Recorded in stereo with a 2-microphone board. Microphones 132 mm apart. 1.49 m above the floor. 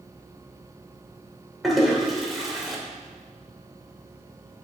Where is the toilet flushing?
Centre (ahead or behind), 2.5 m.